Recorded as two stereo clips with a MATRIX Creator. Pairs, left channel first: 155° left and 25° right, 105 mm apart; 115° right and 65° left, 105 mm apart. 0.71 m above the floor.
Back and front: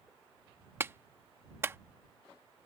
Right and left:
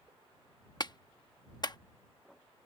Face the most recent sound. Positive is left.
turn(degrees=-85)